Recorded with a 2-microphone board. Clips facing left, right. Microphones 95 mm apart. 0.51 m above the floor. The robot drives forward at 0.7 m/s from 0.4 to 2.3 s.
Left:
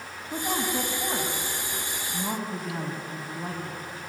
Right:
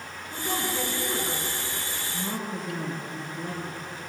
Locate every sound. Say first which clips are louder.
0.3 s a woman speaking: left 2 dB; 75° left (ahead or behind), 4 m; by 3.8 s 60° left (ahead or behind), 4.5 m